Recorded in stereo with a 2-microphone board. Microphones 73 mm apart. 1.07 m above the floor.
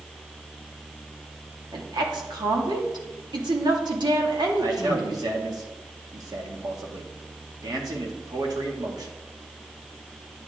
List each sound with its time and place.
1.7 s a woman speaking: 80° right, 2 m
4.6 s a man speaking: 65° right (ahead or behind), 1.9 m